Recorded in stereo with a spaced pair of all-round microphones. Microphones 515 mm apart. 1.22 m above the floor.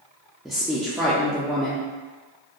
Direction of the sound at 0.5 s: Centre (ahead or behind).